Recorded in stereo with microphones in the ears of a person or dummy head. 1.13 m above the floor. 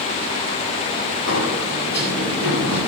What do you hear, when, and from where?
1.3 s a sliding door: 50° left (ahead or behind), 8 m